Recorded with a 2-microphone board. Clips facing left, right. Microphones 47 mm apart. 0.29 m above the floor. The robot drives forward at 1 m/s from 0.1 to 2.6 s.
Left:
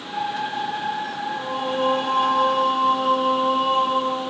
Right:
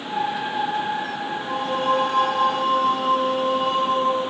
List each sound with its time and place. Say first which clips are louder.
1.3 s singing: even; 25° left (ahead or behind), 4 m; by 4.2 s 20° left (ahead or behind), 5 m